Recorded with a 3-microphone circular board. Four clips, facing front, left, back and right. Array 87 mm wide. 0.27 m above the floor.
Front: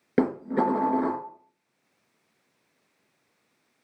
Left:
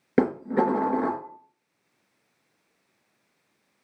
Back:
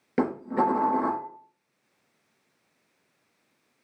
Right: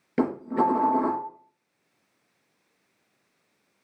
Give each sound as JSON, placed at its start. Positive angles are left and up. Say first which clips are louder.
{"t": 0.2, "sound": "dishes clattering", "louder": "left 2 dB, front 1 dB", "azimuth_deg": 65, "distance_m": 2.5}